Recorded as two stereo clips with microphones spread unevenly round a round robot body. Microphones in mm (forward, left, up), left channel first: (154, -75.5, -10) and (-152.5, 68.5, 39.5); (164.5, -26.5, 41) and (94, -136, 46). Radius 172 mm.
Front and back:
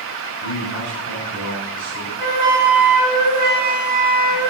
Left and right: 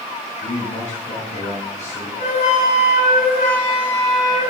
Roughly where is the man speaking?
Left.